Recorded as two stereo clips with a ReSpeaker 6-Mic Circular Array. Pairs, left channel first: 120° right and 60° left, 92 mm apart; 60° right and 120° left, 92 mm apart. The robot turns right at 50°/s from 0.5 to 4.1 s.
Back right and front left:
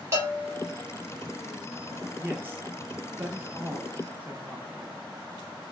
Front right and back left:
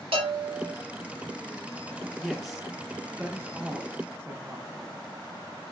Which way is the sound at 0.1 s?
115° left.